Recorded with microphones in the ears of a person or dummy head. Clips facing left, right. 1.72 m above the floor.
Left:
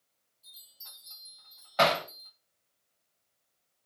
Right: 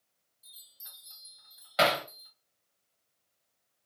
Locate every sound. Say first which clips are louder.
0.4 s a chime: left 2 dB; 15° right (ahead or behind), 3 m
1.8 s hammering: left 1 dB; 30° right (ahead or behind), 3 m